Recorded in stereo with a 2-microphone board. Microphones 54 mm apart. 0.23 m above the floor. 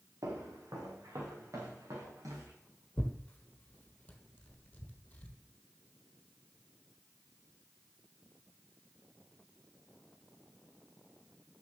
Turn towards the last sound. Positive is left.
turn(degrees=25)  # may be behind; listen again after turning